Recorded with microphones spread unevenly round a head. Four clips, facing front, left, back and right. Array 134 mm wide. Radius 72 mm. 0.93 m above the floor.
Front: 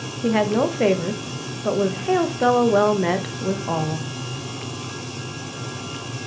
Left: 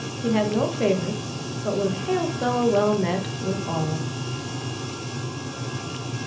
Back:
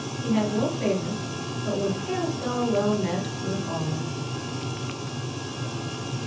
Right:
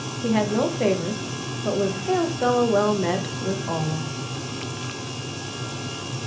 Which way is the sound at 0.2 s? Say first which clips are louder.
Even, front 5 dB; 5° right.